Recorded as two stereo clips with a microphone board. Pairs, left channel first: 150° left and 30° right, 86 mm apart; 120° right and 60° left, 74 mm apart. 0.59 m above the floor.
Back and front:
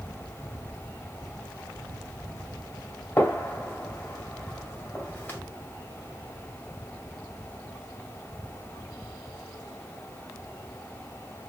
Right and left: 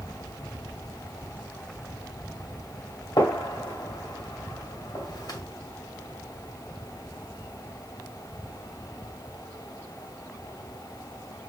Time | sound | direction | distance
3.2 | a gunshot | 145° right | 2 m